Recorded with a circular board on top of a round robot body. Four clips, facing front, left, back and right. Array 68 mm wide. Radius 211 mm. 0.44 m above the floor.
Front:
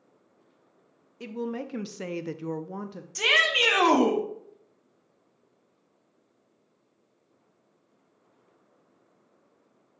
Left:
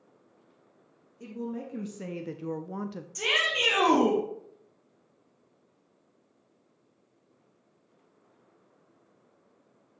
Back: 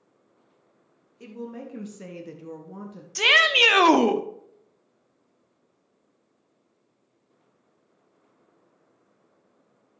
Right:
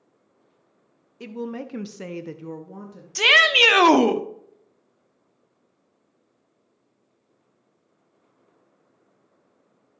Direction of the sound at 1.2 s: 60° right.